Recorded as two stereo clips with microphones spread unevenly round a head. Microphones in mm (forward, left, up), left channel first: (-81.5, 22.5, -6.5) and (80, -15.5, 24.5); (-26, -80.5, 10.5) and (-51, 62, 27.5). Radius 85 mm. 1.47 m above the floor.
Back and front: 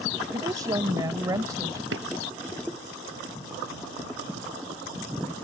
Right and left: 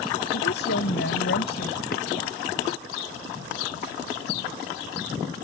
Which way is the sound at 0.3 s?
80° right.